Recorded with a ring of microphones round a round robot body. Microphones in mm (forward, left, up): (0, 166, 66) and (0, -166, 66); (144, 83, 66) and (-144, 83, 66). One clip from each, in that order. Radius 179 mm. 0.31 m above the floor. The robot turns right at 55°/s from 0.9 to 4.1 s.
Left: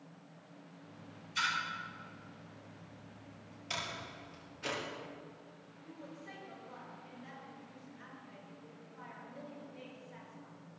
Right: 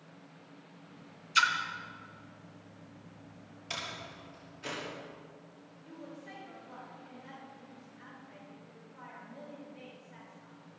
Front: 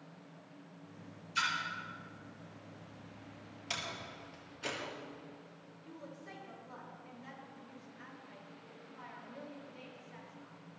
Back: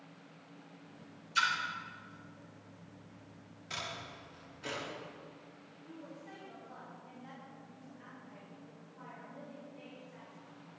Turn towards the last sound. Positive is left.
turn(degrees=5)